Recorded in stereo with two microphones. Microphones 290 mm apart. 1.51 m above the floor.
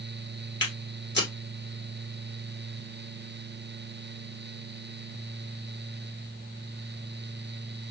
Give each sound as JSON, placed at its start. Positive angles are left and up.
{"t": 0.6, "sound": "footsteps", "side_deg": 40, "distance_m": 2.5}